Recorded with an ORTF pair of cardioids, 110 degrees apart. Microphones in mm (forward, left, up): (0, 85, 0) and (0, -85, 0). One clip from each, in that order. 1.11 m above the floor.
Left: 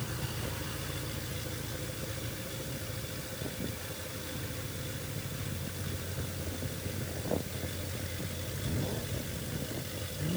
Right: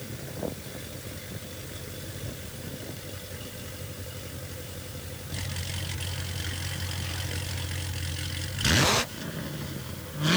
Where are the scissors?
I don't hear scissors.